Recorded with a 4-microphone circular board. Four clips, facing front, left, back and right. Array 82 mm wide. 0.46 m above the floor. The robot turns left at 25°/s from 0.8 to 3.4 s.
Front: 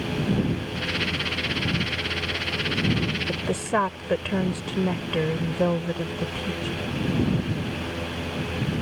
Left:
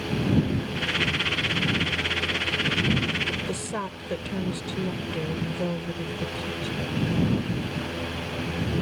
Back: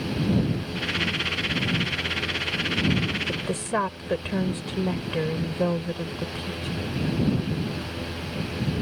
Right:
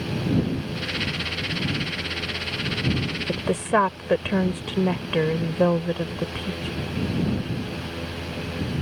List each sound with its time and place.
3.3 s a woman speaking: 75° right; by 6.7 s 80° right